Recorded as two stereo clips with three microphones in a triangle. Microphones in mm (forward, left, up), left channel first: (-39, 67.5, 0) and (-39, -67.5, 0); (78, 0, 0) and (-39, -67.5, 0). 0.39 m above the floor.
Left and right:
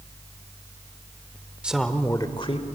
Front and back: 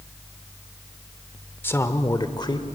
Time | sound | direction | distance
1.6 | a man speaking | 20° right | 0.9 m